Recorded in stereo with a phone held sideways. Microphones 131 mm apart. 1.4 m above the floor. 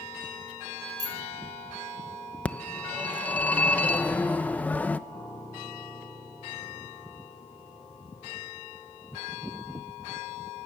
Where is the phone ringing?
10° left (ahead or behind), 0.8 m.